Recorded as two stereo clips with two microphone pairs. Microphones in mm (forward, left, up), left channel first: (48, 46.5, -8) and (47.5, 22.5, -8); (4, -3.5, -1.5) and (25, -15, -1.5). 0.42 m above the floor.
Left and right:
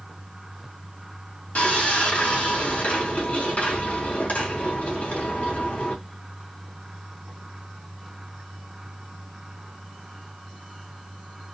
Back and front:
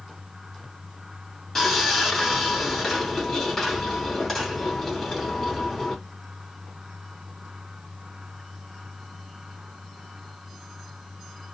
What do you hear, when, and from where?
1.6 s sawing: 80° left, 2.5 m